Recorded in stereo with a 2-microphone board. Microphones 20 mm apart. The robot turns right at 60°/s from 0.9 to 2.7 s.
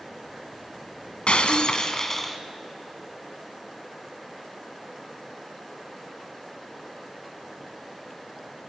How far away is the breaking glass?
About 1.7 m.